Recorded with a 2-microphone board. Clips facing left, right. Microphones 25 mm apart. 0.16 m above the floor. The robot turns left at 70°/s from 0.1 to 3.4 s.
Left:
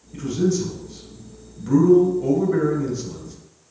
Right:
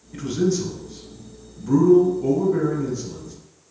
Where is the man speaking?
115° right, 2.5 m; by 3.3 s 20° left, 2.5 m.